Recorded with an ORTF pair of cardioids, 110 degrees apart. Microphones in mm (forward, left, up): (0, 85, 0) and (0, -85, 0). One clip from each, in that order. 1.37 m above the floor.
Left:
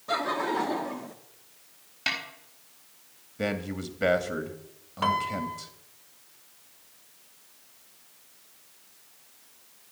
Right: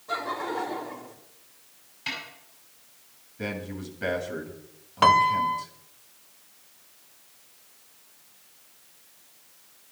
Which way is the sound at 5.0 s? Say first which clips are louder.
Right 9 dB; 40° right.